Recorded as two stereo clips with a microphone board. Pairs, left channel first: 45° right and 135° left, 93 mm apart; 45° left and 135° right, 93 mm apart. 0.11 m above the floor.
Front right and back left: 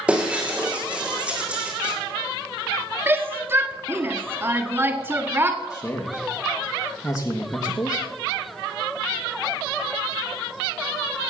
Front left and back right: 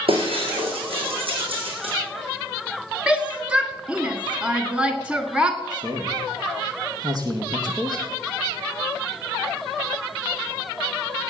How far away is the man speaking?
About 3 m.